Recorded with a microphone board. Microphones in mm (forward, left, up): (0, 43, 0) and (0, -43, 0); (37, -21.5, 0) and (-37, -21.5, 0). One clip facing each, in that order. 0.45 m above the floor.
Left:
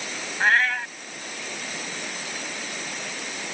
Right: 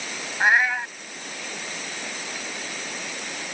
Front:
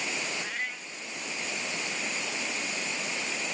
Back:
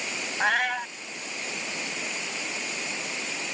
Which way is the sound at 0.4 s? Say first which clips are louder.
Right 1 dB, back 11 dB; 170° right.